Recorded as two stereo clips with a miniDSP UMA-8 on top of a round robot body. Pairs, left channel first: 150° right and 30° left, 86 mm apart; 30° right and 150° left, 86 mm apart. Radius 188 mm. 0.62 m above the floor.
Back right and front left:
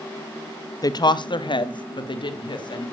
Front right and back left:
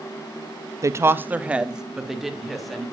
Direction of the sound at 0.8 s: 175° right.